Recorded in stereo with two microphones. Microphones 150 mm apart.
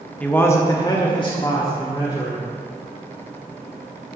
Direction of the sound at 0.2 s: 10° left (ahead or behind).